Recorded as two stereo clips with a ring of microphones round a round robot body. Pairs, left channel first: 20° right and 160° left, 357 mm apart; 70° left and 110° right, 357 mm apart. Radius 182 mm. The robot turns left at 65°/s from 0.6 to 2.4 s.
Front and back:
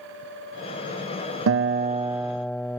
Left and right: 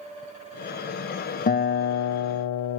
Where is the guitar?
125° left; by 2.8 s 65° left.